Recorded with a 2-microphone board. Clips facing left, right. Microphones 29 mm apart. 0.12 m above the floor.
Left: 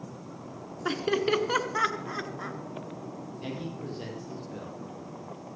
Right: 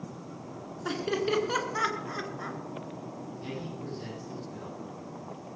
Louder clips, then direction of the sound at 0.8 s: Left 3 dB; 20° left (ahead or behind).